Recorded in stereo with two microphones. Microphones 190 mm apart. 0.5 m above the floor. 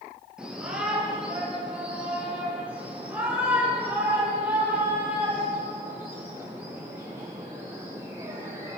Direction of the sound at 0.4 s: 5° right (ahead or behind).